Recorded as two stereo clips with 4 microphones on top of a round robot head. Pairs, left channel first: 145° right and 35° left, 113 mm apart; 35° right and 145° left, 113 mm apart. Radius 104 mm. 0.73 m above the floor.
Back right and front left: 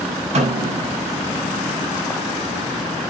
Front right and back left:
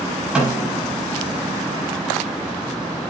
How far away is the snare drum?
About 8.5 m.